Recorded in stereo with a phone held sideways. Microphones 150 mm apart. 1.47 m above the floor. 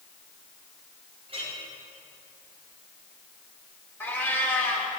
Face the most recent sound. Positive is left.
turn(degrees=15)  # may be behind; listen again after turning